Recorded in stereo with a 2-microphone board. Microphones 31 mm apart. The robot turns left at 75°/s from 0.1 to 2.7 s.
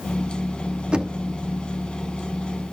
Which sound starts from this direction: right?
Knocking, at 0.9 s.